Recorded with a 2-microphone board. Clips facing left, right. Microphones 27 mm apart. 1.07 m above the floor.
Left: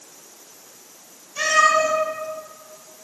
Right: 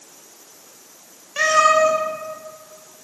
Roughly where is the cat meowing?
Right.